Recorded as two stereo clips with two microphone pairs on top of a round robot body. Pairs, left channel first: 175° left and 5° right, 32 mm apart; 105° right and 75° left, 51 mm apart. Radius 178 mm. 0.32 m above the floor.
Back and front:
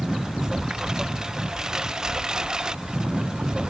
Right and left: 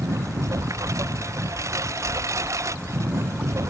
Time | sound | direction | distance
0.0 | a lawn mower | 65° left | ?